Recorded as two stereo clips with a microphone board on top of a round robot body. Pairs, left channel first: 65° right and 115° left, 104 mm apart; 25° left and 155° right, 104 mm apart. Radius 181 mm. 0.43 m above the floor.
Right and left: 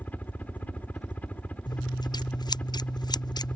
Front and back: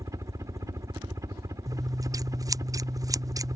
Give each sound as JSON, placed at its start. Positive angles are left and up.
{"t": 0.0, "sound": "a helicopter", "azimuth_deg": -130}
{"t": 1.7, "sound": "scissors", "azimuth_deg": -110}